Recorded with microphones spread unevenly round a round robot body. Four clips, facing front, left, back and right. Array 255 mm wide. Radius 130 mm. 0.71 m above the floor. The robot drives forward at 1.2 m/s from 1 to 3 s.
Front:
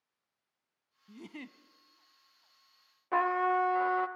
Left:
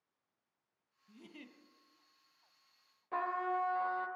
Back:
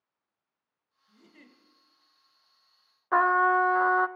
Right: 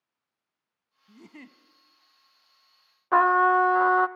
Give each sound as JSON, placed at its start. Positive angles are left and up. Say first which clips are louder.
{"t": 1.1, "sound": "a giggle", "louder": "right 6 dB, front 10 dB", "azimuth_deg": -25, "distance_m": 1.2}
{"t": 3.1, "sound": "a trumpet", "louder": "right 16 dB, back 6 dB", "azimuth_deg": -95, "distance_m": 0.5}